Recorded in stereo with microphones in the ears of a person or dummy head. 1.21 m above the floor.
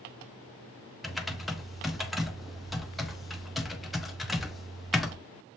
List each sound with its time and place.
1.0 s typing on a keyboard: centre (ahead or behind), 0.6 m